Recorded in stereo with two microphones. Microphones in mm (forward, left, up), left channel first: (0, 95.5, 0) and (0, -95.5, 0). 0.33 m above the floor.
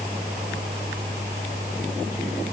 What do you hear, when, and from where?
Only background noise.